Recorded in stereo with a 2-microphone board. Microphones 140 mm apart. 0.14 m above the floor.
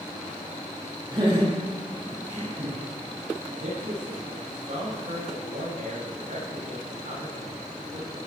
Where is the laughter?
35° right (ahead or behind), 5.5 m; by 2.8 s 40° right (ahead or behind), 7.5 m.